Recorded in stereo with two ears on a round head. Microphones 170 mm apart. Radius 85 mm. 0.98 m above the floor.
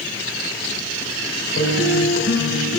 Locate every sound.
1.6 s a guitar: 75° left (ahead or behind), 4 m